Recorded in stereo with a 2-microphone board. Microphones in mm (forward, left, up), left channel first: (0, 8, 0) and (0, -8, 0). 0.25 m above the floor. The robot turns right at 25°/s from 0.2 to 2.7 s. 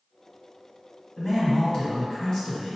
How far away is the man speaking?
About 1.3 m.